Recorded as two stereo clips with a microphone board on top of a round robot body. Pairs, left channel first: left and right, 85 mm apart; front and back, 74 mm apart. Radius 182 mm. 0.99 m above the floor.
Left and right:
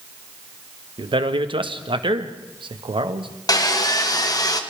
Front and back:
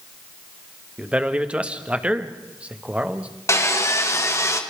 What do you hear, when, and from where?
1.0 s a man speaking: 105° right, 1.8 m
3.5 s sawing: 50° left, 2 m